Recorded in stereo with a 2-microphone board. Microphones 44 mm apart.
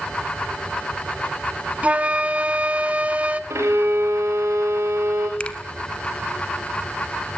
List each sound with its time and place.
1.8 s a flute: 30° right (ahead or behind), 0.6 m
3.5 s a violin: 90° right, 4 m
5.4 s a finger snap: 25° left (ahead or behind), 1.1 m